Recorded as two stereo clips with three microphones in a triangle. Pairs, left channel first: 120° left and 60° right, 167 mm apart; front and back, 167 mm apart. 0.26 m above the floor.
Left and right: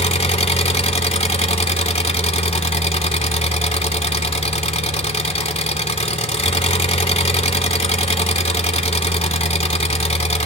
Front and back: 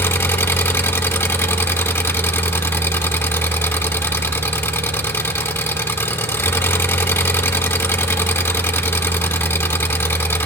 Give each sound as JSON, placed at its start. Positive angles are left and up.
{"t": 0.0, "sound": "an engine running", "azimuth_deg": 75, "distance_m": 1.3}